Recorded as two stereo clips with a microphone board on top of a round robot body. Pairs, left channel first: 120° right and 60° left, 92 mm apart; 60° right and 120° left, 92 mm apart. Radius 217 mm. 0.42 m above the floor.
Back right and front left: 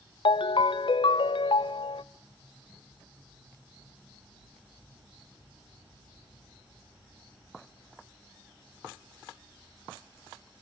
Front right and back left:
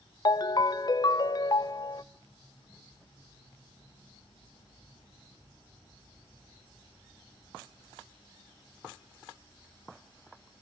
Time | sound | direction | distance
0.2 | a ringtone | 100° right | 0.6 m